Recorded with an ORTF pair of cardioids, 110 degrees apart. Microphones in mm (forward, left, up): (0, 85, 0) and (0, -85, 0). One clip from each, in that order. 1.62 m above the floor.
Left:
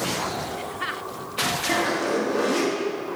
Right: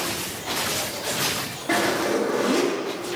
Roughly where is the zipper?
Ahead.